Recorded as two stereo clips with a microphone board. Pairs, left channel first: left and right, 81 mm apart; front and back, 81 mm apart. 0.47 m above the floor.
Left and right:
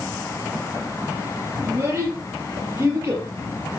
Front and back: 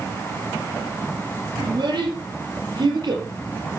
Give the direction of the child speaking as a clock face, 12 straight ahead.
5 o'clock.